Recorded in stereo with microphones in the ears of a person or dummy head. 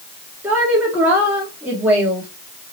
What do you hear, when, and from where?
0.4 s a woman speaking: 5° right (ahead or behind), 2.5 m